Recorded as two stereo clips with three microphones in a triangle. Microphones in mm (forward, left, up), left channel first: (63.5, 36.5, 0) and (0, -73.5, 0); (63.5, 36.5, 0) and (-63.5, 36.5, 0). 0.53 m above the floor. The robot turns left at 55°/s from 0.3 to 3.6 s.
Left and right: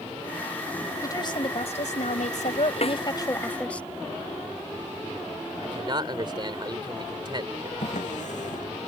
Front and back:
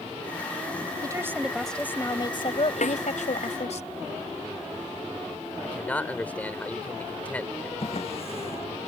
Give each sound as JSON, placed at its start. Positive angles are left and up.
{"t": 1.0, "sound": "a woman speaking", "azimuth_deg": 125}
{"t": 2.8, "sound": "a snare drum", "azimuth_deg": 20}
{"t": 5.6, "sound": "a man speaking", "azimuth_deg": -75}
{"t": 7.8, "sound": "a drawer", "azimuth_deg": 40}